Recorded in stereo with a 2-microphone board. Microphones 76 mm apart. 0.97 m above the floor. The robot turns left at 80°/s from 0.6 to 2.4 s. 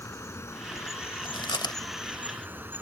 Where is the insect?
100° left; by 2.8 s 45° right.